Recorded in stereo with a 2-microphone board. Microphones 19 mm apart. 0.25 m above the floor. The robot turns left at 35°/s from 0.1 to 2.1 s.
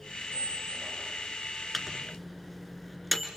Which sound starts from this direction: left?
A squeak, at 0.3 s.